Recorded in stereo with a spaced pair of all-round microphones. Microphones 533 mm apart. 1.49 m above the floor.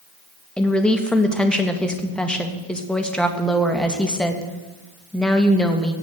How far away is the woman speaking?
About 1.8 m.